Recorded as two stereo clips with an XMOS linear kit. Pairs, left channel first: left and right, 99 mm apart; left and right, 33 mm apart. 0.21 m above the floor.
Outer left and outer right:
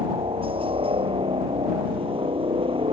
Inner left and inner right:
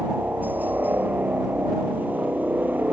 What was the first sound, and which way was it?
A helicopter, 65° right (ahead or behind).